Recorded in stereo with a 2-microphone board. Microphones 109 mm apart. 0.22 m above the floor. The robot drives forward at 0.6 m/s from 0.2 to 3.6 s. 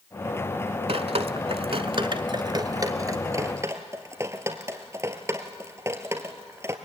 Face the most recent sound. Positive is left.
turn(degrees=-25)  # may be behind; listen again after turning